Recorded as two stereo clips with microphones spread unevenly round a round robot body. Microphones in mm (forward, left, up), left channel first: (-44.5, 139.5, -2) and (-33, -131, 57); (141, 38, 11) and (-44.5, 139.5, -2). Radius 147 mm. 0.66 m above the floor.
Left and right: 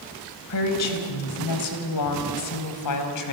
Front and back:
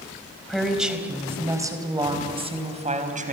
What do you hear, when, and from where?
0.5 s a woman speaking: 60° left, 3.5 m; by 3.3 s 100° left, 4 m